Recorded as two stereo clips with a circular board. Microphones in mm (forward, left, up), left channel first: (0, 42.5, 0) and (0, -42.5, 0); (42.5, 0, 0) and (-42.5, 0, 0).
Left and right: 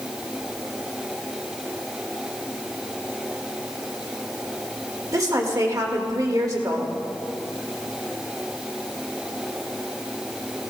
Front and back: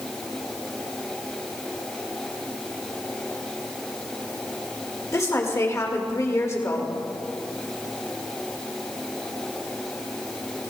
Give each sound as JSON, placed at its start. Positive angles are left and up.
{"t": 5.1, "sound": "a woman speaking", "azimuth_deg": -50, "distance_m": 2.0}